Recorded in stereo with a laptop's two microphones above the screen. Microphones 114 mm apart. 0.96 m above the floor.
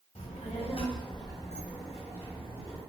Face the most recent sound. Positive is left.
turn(degrees=-25)  # may be behind; listen again after turning